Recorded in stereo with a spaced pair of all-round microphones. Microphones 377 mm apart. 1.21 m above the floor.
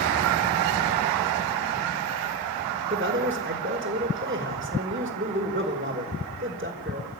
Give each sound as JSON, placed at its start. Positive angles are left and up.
{"t": 2.9, "sound": "a man speaking", "side_deg": -30, "distance_m": 4.5}